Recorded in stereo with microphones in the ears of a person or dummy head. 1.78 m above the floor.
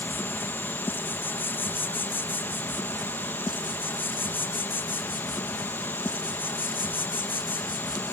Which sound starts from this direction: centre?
An insect, at 0.0 s.